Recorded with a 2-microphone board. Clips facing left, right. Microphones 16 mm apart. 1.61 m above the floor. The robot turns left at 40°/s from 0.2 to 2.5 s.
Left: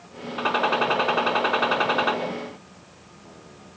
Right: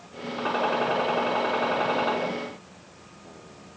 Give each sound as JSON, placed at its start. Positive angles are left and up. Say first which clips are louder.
{"t": 0.4, "sound": "a gunshot", "louder": "left 3 dB", "azimuth_deg": 120, "distance_m": 5.0}